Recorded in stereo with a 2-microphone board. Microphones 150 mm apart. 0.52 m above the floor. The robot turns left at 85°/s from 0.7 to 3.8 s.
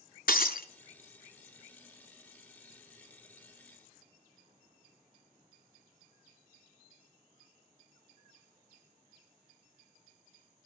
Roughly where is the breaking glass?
Left.